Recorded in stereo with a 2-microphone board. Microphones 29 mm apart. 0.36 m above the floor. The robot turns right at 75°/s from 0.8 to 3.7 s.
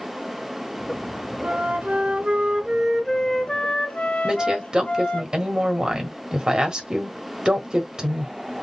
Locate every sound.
1.4 s a flute: 115° right, 1.1 m; by 5.2 s 55° left, 1.1 m
4.2 s a woman speaking: 30° right (ahead or behind), 1.5 m